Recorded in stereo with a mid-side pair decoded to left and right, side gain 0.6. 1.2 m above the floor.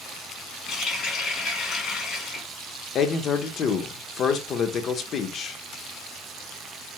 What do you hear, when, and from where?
0.7 s a running tap: 55° left, 1.7 m
3.0 s a man speaking: 45° left, 0.8 m